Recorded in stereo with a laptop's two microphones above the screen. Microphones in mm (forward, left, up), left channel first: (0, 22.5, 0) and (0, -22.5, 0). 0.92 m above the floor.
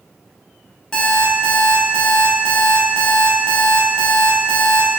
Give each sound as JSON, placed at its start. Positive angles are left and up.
{"t": 0.9, "sound": "an alarm clock", "side_deg": 20, "distance_m": 0.7}